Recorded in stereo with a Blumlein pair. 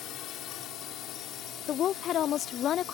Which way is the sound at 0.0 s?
35° left.